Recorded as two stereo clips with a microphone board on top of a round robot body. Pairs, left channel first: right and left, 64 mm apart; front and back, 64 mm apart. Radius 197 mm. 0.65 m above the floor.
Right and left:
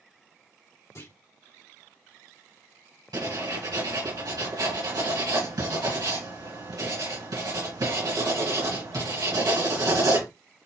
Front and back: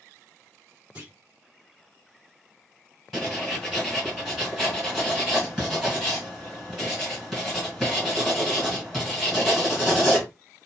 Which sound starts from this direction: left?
Writing, at 3.1 s.